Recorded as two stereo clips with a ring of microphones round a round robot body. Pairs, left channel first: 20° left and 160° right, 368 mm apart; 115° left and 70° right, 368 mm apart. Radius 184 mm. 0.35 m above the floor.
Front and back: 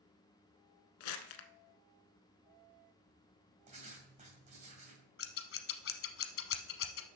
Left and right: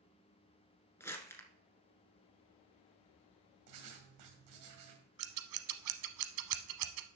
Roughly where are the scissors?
Ahead right.